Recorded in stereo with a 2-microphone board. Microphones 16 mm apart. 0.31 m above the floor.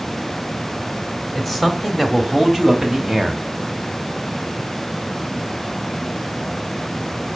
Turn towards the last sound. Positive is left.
turn(degrees=-50)  # may be behind; listen again after turning